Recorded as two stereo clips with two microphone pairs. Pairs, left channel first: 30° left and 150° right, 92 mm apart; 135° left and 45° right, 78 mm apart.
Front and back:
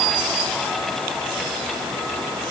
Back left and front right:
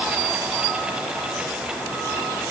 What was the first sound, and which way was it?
Only background noise.